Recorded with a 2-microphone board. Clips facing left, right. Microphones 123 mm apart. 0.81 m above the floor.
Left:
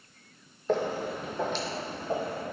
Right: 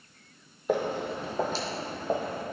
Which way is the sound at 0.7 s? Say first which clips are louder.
Even; 15° right (ahead or behind).